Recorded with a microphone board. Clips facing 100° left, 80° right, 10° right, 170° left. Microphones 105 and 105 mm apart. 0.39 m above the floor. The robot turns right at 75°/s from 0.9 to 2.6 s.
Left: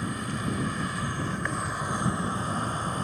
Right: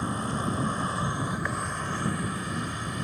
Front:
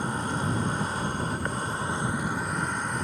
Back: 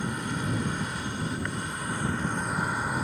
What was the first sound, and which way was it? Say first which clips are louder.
An insect: right 2 dB, front 2 dB; 40° right.